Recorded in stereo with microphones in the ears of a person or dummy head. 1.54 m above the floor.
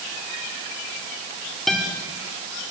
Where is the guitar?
Centre (ahead or behind), 4 m.